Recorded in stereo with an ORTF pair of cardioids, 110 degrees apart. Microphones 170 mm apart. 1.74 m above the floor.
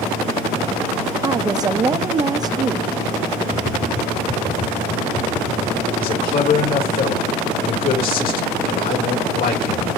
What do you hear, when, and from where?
1.2 s a woman speaking: 25° right, 0.6 m
3.5 s tapping: 45° left, 2.5 m
6.0 s a man speaking: 60° left, 2.5 m